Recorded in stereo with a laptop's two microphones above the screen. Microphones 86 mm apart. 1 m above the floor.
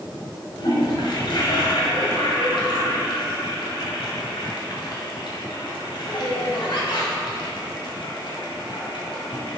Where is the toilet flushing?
70° left (ahead or behind), 1.9 m.